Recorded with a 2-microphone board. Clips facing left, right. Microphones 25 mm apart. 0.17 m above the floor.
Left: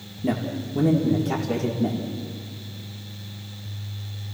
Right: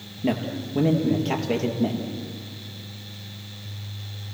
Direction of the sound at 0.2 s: 35° right (ahead or behind).